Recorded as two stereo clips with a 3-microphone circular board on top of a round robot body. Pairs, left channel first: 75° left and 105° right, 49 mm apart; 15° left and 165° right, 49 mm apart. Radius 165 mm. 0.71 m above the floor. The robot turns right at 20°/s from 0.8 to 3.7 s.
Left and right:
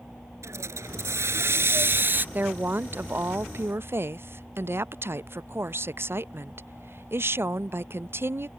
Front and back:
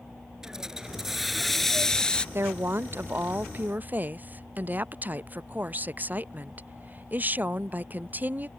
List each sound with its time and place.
0.4 s a hiss: 85° right; by 2.2 s 55° right
2.4 s a woman speaking: 145° right; by 8.5 s 120° right